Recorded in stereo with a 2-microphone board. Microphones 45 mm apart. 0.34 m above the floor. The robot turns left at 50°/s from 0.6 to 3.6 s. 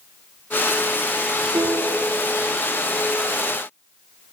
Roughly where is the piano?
Right.